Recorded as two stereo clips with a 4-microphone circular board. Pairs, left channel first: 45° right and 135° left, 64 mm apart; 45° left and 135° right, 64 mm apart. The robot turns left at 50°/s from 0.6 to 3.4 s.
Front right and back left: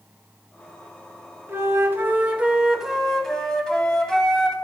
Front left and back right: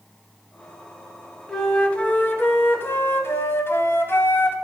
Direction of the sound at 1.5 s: 125° left.